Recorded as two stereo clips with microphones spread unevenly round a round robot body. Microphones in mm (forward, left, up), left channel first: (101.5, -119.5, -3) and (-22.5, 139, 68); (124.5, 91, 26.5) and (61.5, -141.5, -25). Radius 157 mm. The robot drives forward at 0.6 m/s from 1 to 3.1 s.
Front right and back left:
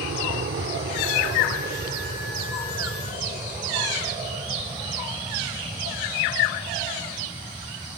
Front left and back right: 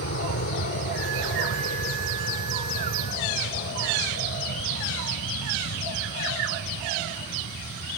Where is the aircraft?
70° left; by 8.0 s 35° left.